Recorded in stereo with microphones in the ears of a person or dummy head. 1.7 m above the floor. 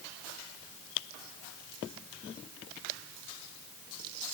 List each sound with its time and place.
Only background noise.